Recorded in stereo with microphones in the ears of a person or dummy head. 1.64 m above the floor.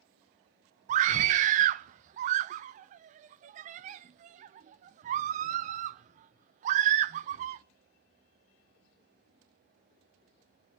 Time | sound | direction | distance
0.9 | a scream | 45° right (ahead or behind) | 0.5 m